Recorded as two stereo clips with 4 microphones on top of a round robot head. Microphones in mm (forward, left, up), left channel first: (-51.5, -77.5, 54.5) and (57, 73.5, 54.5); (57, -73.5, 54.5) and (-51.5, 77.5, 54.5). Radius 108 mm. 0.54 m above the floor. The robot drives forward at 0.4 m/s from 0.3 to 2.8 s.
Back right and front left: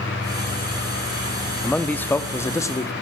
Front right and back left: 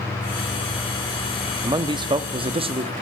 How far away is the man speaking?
About 1.1 m.